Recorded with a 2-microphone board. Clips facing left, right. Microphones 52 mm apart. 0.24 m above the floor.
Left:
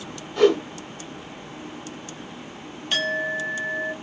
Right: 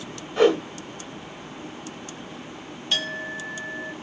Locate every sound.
0.4 s a whoosh: 15° right (ahead or behind), 1.5 m
2.9 s a clink: 20° left (ahead or behind), 1.1 m